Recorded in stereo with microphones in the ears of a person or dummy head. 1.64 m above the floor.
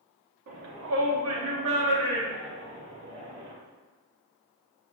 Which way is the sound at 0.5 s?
65° right (ahead or behind).